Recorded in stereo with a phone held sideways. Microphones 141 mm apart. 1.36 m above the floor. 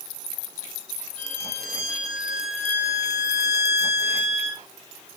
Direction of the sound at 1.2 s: 55° left (ahead or behind).